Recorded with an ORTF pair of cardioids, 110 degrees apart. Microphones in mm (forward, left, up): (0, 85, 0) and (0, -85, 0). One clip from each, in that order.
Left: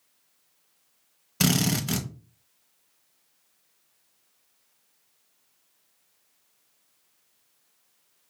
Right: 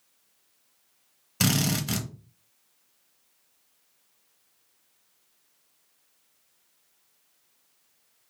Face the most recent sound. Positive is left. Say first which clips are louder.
# left 1 dB
turn(degrees=5)